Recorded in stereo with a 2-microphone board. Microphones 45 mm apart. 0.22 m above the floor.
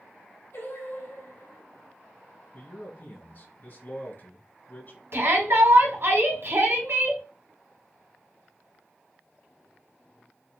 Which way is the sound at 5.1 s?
60° right (ahead or behind).